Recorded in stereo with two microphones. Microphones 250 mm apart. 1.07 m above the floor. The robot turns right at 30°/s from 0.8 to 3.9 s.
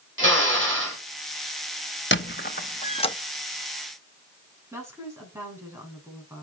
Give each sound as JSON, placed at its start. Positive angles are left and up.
{"t": 0.2, "sound": "a drill", "side_deg": -55, "distance_m": 6.0}
{"t": 2.1, "sound": "a squeak", "side_deg": 50, "distance_m": 0.8}
{"t": 4.7, "sound": "a woman speaking", "side_deg": -10, "distance_m": 8.0}